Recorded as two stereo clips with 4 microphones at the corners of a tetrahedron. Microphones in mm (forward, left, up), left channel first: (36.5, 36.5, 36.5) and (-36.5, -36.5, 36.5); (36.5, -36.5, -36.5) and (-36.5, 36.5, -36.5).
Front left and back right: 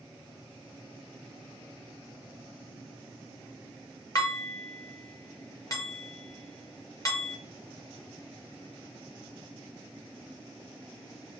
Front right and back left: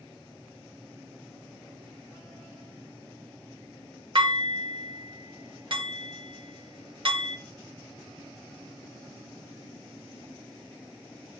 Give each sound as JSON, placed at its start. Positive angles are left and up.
{"t": 4.2, "sound": "dishes clattering", "azimuth_deg": 100, "distance_m": 1.1}